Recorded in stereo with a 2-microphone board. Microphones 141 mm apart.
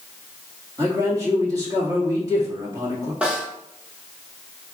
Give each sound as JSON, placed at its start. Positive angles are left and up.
{"t": 0.8, "sound": "a man speaking", "side_deg": -25, "distance_m": 1.5}
{"t": 3.2, "sound": "a snare drum", "side_deg": -10, "distance_m": 1.1}